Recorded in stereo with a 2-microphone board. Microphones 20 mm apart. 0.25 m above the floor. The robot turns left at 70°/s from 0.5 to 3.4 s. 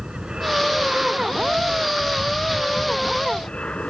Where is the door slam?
I don't hear a door slam.